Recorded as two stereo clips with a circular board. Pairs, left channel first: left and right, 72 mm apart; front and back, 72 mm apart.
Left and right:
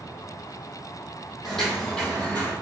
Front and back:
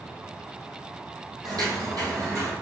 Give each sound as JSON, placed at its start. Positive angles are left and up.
{"t": 1.4, "sound": "footsteps", "azimuth_deg": 175, "distance_m": 1.5}